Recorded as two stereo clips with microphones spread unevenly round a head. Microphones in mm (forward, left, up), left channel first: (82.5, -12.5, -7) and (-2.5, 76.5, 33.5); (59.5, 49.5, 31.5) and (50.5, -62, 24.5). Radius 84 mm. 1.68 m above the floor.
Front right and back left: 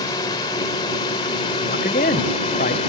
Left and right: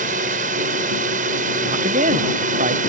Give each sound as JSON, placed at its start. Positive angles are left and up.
{"t": 0.0, "sound": "a drone", "azimuth_deg": -115}
{"t": 1.6, "sound": "a man speaking", "azimuth_deg": -85}